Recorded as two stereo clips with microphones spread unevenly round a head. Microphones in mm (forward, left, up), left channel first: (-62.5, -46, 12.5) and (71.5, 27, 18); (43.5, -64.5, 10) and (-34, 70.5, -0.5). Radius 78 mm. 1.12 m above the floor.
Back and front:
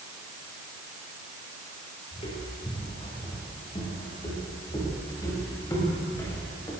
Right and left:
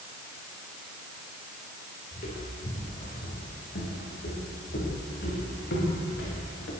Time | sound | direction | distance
2.1 | footsteps | 100° right | 8 m